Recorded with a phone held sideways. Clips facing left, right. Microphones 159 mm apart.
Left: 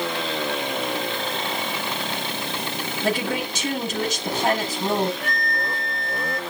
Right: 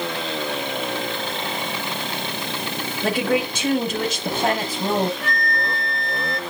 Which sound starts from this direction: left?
A flute, at 5.2 s.